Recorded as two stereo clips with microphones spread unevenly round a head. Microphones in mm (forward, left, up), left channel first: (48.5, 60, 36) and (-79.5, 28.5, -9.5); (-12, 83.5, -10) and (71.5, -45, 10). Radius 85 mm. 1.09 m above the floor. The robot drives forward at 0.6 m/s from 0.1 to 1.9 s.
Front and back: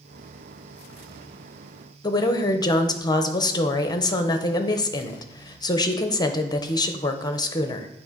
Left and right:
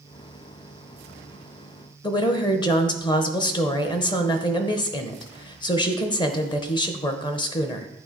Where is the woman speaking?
85° left, 0.7 m.